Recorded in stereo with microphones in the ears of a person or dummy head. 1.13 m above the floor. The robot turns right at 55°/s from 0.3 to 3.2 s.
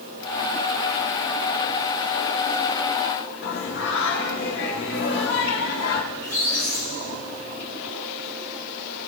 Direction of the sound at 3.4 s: 80° left.